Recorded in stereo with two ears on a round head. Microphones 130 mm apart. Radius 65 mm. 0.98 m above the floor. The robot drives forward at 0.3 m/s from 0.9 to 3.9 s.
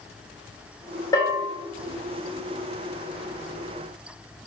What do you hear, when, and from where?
1.1 s a bell: 25° left (ahead or behind), 0.9 m